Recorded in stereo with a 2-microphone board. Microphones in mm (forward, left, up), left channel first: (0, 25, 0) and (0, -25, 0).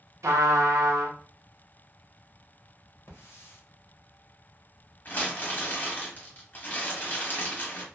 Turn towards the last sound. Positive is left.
turn(degrees=35)  # may be behind; listen again after turning